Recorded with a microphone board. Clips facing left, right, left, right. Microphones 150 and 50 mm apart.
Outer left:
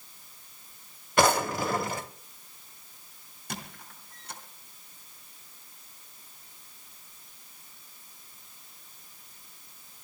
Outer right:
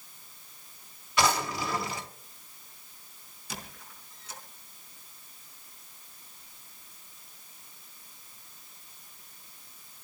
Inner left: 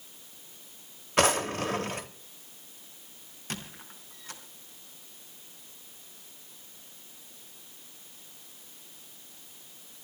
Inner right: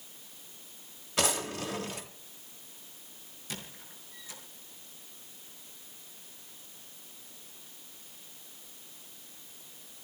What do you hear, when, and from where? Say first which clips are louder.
1.2 s a drawer: outer left 4 dB, inner left 6 dB; 50° left (ahead or behind), 1.1 m
3.5 s a squeak: outer left 3 dB, inner left 4 dB; 60° left (ahead or behind), 3.5 m